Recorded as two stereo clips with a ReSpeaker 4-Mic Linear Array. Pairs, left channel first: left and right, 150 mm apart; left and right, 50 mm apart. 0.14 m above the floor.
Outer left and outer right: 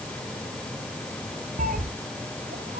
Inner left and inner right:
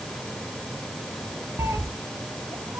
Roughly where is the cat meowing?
Right.